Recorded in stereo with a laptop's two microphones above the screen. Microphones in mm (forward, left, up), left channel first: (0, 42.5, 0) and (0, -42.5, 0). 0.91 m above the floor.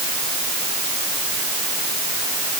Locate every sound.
Only background noise.